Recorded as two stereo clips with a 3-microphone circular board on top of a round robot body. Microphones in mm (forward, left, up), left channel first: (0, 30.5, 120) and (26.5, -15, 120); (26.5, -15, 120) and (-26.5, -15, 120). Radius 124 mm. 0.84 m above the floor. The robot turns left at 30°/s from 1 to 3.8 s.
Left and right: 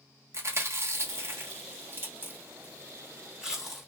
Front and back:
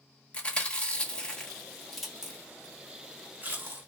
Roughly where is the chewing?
Ahead right.